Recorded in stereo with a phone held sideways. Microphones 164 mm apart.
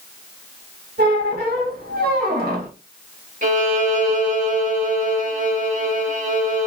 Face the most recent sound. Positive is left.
turn(degrees=-50)  # may be behind; listen again after turning